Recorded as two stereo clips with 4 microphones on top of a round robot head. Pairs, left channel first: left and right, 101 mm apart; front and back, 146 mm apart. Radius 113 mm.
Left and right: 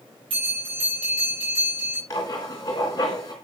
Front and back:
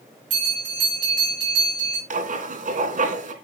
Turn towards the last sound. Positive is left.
turn(degrees=155)